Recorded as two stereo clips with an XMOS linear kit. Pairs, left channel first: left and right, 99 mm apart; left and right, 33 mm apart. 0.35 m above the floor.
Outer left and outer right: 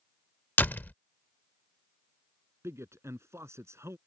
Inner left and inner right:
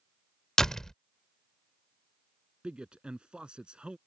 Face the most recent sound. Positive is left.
turn(degrees=-30)  # may be behind; listen again after turning